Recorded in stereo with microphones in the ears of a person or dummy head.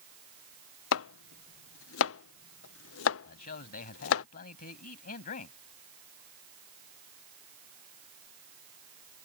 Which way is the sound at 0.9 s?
75° left (ahead or behind).